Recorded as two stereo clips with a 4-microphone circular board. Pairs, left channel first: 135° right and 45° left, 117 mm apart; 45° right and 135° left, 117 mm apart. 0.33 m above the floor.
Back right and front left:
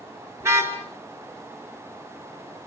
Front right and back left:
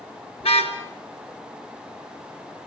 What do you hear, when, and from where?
0.4 s a car horn: 20° right, 3 m